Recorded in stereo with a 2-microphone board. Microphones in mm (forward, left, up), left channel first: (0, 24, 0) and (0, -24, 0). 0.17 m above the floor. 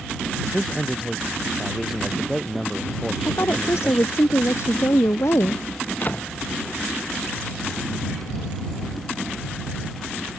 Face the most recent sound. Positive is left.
turn(degrees=35)  # may be behind; listen again after turning